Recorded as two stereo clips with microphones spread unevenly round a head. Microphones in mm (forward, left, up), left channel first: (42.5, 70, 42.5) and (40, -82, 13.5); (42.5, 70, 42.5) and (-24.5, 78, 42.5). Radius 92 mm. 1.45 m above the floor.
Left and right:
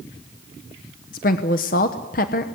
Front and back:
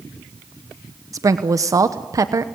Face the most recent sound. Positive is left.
turn(degrees=135)